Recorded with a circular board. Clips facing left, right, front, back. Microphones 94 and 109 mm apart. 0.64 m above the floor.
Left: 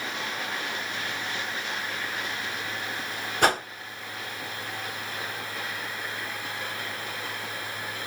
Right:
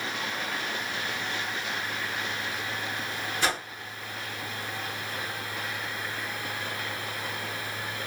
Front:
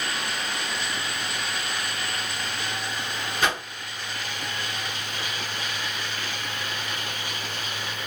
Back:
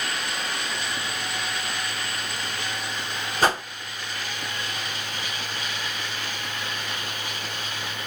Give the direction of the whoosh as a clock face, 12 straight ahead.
8 o'clock.